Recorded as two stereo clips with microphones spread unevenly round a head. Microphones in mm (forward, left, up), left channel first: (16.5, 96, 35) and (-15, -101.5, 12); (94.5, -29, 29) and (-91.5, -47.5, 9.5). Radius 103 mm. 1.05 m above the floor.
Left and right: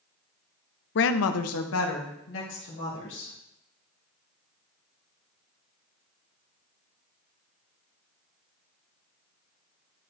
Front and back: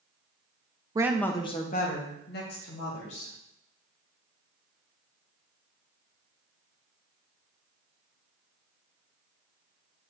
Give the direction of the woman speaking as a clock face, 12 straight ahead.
8 o'clock.